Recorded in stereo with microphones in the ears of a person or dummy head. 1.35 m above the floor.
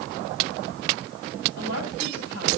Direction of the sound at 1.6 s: 75° left (ahead or behind).